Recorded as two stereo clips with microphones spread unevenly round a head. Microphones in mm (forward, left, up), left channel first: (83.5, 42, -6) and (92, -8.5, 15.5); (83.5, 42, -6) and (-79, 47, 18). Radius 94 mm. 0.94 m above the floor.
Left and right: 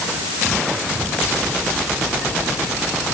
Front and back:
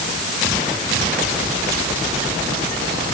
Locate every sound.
Only background noise.